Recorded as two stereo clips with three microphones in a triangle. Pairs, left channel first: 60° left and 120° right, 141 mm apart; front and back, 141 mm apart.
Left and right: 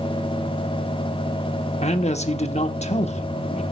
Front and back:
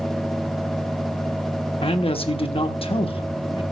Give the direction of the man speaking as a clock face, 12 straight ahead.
11 o'clock.